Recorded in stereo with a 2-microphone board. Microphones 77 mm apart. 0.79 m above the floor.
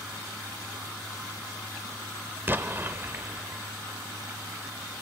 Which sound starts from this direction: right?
An explosion, at 2.5 s.